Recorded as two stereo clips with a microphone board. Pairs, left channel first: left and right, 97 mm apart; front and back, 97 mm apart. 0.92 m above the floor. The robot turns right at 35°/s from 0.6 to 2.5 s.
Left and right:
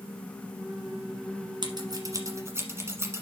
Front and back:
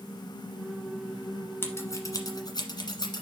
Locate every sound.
1.6 s scissors: 60° right, 1.4 m; by 3.2 s 30° right, 1.4 m